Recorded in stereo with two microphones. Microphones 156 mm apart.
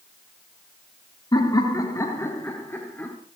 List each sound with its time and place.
1.3 s laughter: 30° left (ahead or behind), 2.5 m; by 3.2 s 10° left (ahead or behind), 3 m